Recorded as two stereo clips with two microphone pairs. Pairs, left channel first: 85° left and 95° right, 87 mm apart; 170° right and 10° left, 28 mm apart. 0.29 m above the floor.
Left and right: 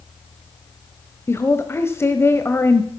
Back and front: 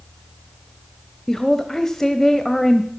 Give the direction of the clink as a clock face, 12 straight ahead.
No clink in this recording.